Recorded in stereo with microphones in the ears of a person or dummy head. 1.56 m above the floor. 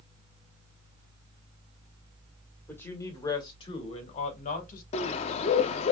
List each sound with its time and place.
2.7 s a woman speaking: 15° left (ahead or behind), 1.6 m; by 4.8 s 55° left (ahead or behind), 1.9 m
4.9 s a bird: 40° left (ahead or behind), 0.6 m